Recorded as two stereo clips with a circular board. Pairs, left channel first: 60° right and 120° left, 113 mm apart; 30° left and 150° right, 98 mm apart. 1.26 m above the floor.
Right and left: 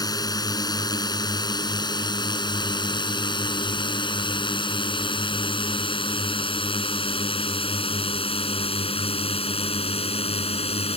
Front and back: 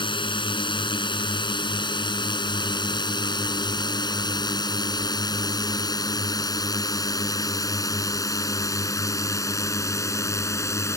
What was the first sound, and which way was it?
A drone, 5° right.